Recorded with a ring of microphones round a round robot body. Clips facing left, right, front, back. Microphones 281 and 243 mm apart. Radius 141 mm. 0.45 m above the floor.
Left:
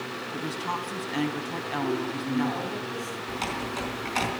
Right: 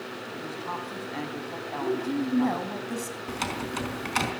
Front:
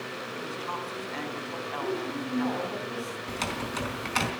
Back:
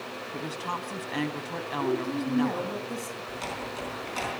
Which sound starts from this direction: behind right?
A woman speaking, at 1.8 s.